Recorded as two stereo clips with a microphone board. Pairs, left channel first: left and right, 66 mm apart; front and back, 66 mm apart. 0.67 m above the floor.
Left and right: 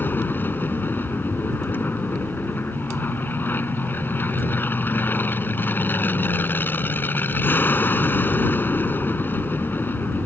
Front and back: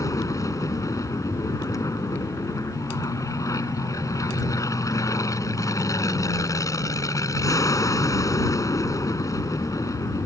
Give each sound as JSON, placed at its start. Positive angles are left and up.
{"t": 0.0, "sound": "an aircraft", "azimuth_deg": 30}